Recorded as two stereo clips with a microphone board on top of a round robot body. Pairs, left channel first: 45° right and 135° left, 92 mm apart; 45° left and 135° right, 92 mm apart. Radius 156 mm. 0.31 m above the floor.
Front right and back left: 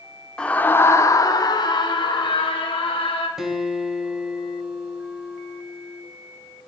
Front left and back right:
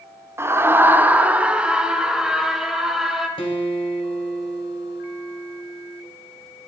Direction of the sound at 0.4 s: 115° right.